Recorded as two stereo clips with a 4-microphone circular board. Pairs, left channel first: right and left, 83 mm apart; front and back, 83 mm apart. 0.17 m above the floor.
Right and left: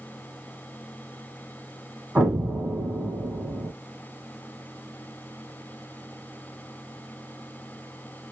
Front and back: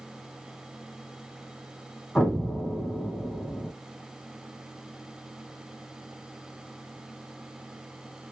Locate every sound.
2.1 s an explosion: 55° left, 1.6 m